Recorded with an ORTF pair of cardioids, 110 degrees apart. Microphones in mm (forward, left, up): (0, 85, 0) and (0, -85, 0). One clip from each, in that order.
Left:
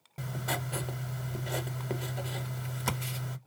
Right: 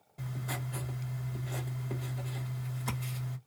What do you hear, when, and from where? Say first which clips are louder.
0.2 s writing: left 6 dB; 60° left, 1.1 m